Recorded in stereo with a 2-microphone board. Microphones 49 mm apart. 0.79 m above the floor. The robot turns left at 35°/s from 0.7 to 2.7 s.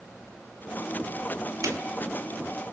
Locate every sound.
1.6 s a snare drum: 85° right, 1.4 m